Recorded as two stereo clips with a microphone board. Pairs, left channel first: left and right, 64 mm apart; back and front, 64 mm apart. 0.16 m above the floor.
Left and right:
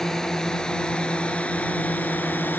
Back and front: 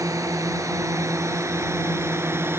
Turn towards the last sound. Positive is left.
turn(degrees=40)